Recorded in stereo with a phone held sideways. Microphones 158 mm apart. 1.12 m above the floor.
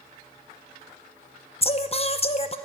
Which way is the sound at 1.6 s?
40° left (ahead or behind).